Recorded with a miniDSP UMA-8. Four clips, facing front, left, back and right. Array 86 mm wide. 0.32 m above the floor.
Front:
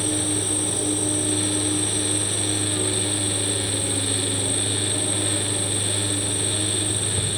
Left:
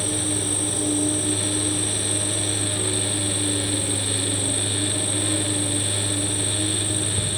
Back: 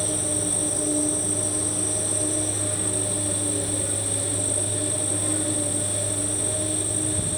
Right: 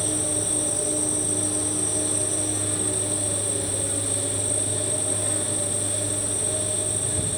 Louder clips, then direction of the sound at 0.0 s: Left 2 dB, front 3 dB; 40° left.